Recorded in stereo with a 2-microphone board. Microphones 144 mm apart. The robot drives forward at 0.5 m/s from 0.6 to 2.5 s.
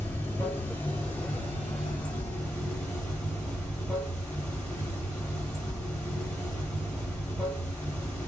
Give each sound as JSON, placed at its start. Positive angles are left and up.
{"t": 0.0, "sound": "running water", "side_deg": 20, "distance_m": 1.4}